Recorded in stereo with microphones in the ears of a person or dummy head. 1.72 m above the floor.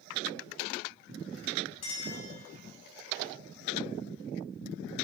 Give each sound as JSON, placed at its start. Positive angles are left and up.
{"t": 1.8, "sound": "a clink", "side_deg": 35, "distance_m": 4.5}